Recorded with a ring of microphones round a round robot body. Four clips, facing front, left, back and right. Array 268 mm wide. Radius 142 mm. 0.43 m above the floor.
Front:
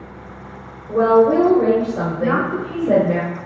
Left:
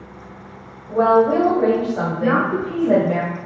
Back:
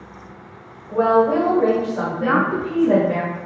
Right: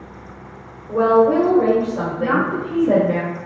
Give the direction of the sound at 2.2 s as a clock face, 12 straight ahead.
6 o'clock.